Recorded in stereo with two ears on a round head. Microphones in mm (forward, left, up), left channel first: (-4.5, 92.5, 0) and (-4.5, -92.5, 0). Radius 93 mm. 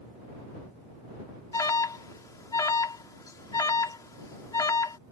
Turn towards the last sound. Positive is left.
turn(degrees=15)  # may be behind; listen again after turning